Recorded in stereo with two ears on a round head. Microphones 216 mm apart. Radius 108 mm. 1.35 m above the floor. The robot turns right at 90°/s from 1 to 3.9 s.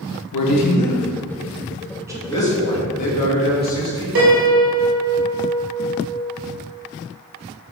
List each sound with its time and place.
0.3 s a man speaking: 85° left, 1.5 m; by 2.2 s 20° right (ahead or behind), 1.5 m
2.3 s a man speaking: 15° left, 2.5 m; by 4.0 s 160° left, 2.5 m
4.2 s a piano: 60° right (ahead or behind), 1.9 m